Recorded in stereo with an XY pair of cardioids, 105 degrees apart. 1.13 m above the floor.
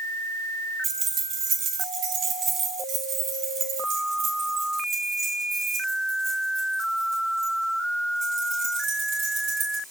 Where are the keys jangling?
60° right, 1.2 m; by 9.8 s 80° right, 7 m.